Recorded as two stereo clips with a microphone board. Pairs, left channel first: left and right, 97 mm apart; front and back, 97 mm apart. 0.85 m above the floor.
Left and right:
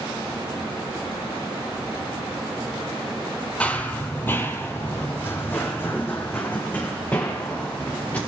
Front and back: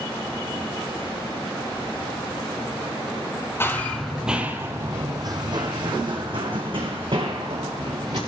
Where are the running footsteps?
25° left, 0.9 m; by 8.2 s 160° left, 3.5 m.